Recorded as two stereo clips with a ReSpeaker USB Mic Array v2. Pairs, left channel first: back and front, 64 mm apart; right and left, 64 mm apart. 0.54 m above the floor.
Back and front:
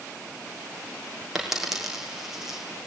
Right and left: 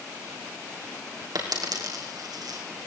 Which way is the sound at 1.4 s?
85° left.